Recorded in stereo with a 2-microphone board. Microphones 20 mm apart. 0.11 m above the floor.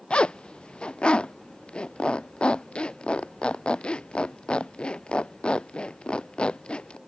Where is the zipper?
60° left (ahead or behind).